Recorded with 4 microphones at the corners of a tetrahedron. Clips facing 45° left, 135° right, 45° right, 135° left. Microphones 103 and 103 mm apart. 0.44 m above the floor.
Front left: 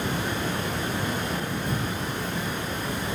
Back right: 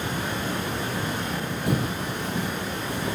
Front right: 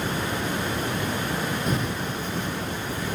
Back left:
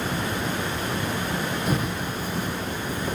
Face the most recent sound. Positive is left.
turn(degrees=-150)